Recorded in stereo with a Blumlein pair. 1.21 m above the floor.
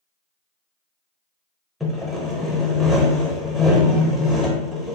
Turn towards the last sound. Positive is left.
turn(degrees=5)